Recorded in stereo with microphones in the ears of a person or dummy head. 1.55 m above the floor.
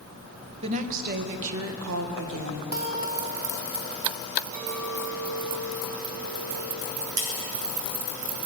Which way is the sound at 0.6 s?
35° right (ahead or behind).